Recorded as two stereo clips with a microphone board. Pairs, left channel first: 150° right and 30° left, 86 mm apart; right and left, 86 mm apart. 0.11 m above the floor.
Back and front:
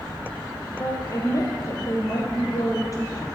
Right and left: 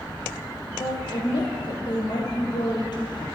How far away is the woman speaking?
About 3.5 m.